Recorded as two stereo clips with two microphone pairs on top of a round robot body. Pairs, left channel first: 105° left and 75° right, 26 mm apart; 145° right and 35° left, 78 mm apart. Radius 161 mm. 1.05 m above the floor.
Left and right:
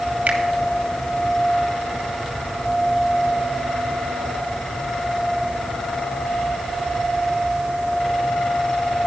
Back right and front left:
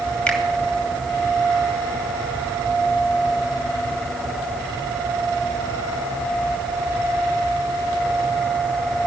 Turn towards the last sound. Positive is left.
turn(degrees=-70)